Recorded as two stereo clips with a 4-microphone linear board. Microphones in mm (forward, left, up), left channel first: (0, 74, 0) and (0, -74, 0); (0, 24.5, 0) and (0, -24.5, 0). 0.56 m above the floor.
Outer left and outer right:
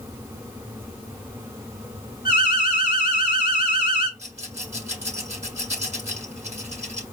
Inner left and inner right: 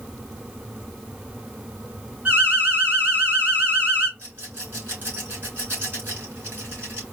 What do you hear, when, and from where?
2.2 s an alarm: 40° right (ahead or behind), 3 m
4.2 s a rattle: 50° right (ahead or behind), 3.5 m